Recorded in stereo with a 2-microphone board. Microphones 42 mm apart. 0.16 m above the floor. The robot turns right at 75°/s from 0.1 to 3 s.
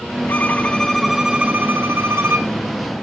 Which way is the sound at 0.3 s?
125° left.